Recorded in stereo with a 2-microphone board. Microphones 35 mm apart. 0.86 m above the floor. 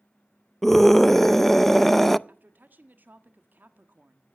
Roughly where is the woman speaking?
Right.